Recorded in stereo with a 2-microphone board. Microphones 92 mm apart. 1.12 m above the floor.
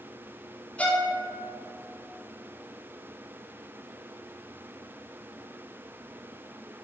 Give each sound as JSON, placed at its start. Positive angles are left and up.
{"t": 0.8, "sound": "a violin", "side_deg": 15, "distance_m": 0.5}